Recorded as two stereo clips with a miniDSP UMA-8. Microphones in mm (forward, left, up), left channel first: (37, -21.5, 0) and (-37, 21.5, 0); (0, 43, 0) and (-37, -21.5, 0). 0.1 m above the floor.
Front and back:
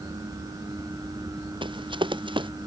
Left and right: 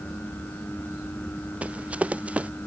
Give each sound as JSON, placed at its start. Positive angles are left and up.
{"t": 1.6, "sound": "running footsteps", "azimuth_deg": 170}